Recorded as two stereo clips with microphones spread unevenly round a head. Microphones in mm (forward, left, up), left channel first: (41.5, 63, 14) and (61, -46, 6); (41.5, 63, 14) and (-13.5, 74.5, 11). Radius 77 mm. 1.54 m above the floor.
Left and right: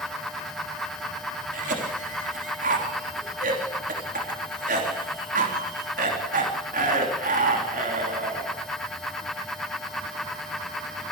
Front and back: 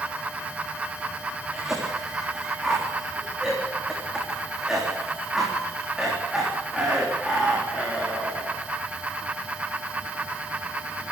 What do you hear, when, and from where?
1.5 s a cough: 105° right, 3 m